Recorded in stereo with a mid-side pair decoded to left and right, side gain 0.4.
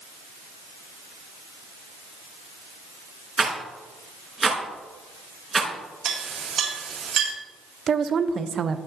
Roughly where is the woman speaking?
Ahead right.